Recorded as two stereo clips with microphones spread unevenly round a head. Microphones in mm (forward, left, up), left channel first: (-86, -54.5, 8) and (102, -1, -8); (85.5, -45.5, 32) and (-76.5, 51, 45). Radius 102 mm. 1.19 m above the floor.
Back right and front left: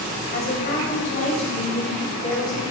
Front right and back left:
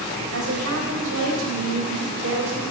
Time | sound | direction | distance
0.3 | a woman speaking | 150° left | 5.5 m